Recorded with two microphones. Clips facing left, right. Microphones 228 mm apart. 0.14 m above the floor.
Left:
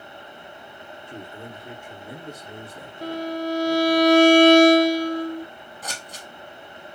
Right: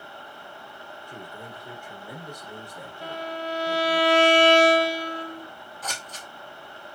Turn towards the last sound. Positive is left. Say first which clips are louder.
# even
turn(degrees=10)  # may be behind; listen again after turning